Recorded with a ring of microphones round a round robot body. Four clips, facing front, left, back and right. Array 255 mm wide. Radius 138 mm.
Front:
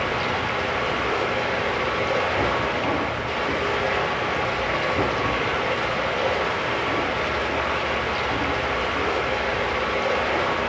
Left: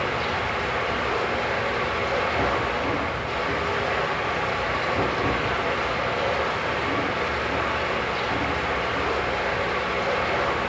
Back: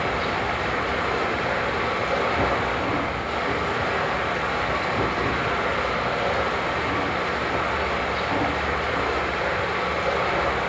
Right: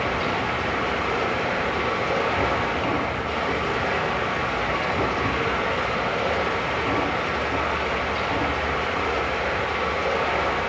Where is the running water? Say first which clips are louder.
Right 1 dB, even; 5° right, 5.5 m.